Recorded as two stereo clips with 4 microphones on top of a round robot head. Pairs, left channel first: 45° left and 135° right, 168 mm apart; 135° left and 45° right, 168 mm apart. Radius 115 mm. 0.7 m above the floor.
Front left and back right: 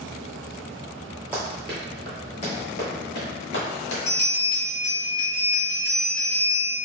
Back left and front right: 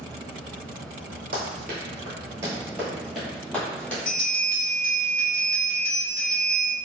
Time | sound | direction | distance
1.3 | running footsteps | 55° right | 0.8 m
4.0 | a bell | 100° left | 1.1 m